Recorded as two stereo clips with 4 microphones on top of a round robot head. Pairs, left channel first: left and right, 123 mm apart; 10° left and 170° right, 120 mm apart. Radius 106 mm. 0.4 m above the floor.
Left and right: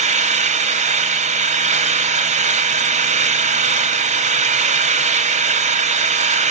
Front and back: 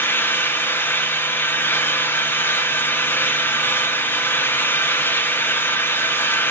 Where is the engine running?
65° right, 1.4 m.